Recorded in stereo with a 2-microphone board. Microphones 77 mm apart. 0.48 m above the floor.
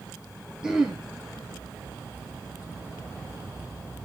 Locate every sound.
0.6 s throat clearing: 10° right (ahead or behind), 3 m